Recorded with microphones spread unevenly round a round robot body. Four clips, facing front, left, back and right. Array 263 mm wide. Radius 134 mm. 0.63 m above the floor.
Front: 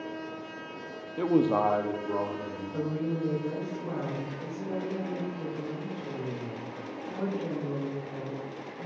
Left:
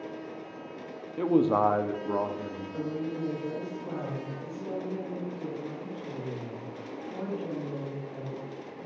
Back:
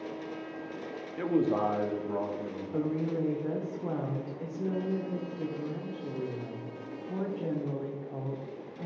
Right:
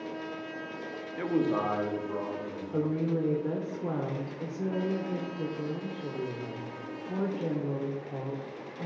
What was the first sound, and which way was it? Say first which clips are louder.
A man speaking: left 5 dB, front 3 dB; 30° left.